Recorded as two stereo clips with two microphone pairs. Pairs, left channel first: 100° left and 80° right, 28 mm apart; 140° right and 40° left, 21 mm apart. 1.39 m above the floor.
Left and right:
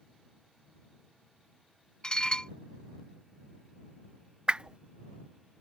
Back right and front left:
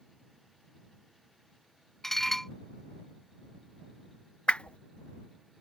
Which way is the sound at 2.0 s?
150° left.